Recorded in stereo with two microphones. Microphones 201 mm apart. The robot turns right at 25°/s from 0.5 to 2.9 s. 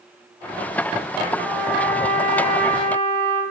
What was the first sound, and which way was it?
A trumpet, 15° right.